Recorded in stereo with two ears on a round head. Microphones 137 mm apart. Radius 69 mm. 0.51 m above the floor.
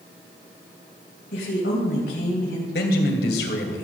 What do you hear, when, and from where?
1.3 s a woman speaking: 70° left (ahead or behind), 3.5 m
2.7 s a man speaking: 70° left (ahead or behind), 2.5 m